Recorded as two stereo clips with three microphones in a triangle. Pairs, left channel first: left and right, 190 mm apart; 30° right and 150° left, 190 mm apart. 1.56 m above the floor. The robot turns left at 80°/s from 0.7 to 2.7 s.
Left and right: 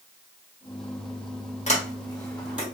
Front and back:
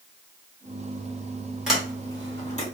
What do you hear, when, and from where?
1.7 s a sliding door: 65° left, 1.1 m; by 2.6 s 10° right, 1.1 m